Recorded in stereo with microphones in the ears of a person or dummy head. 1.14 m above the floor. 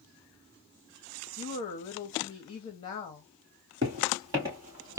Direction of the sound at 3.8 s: 20° right (ahead or behind).